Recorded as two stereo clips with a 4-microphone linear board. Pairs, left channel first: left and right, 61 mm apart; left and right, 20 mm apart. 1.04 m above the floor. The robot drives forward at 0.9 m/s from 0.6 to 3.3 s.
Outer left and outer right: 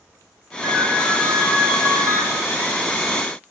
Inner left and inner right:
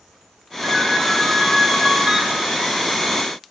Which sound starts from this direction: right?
A ringtone, at 0.6 s.